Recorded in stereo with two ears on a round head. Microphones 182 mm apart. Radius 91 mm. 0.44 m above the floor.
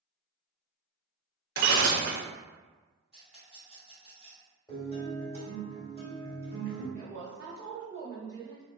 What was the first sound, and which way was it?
Breaking glass, 60° right (ahead or behind).